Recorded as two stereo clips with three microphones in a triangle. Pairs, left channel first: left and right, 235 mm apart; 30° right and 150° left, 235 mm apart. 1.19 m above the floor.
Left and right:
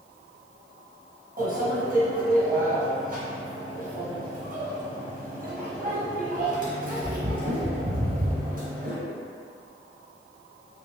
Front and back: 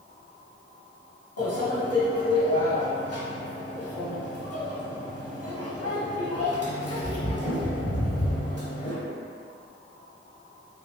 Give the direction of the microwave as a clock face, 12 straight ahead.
1 o'clock.